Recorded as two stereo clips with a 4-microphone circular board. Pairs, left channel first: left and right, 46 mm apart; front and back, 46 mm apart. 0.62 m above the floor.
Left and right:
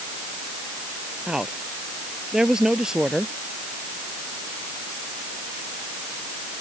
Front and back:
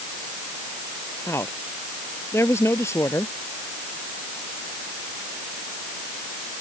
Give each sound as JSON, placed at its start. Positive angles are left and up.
{"t": 1.3, "sound": "a woman speaking", "azimuth_deg": -15}